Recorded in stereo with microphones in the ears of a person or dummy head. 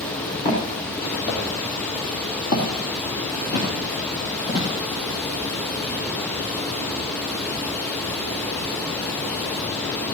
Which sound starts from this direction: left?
Footsteps, at 0.5 s.